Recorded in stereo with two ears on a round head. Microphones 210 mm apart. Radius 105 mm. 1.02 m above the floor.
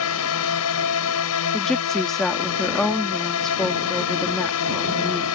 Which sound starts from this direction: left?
A drone, at 0.0 s.